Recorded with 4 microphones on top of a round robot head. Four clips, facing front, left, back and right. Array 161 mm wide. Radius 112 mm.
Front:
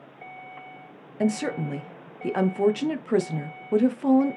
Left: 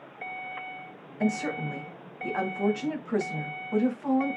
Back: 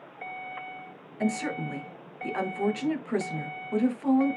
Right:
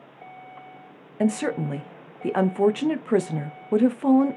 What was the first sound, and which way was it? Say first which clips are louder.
A woman speaking: right 5 dB, front 4 dB; 70° right.